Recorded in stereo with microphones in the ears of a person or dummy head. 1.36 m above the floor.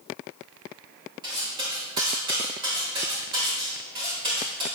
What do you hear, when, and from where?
1.2 s cutlery clinking: 25° right (ahead or behind), 3 m